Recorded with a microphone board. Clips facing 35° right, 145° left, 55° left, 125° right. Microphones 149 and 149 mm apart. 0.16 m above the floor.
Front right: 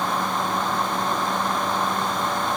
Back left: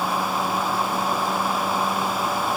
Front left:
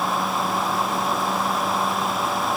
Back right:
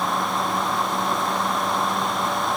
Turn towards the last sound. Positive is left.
No sound to turn to.